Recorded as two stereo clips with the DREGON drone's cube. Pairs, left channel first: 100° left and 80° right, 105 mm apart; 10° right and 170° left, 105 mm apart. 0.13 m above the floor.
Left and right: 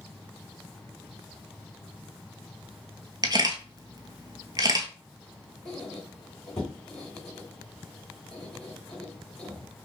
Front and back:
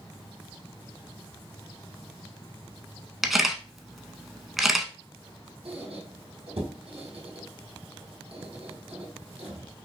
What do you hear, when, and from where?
3.2 s a camera shutter: 105° right, 0.7 m
5.7 s a squeak: 175° right, 2.5 m